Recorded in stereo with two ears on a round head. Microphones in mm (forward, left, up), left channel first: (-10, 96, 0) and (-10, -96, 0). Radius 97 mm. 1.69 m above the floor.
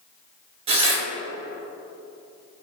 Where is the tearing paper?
25° right (ahead or behind), 1.3 m.